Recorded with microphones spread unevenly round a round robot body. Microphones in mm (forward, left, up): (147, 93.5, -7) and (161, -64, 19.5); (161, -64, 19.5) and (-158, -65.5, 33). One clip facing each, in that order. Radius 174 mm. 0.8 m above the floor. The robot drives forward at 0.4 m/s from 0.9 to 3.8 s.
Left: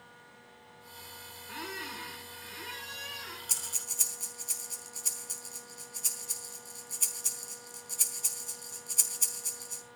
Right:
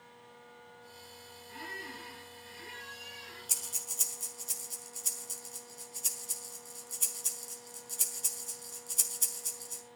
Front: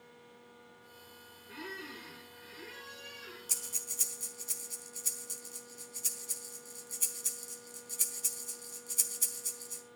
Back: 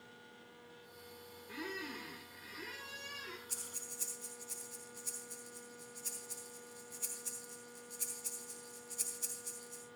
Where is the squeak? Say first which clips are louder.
Left 4 dB, back 1 dB; 90° left, 5.5 m; by 3.4 s 100° left, 5.5 m.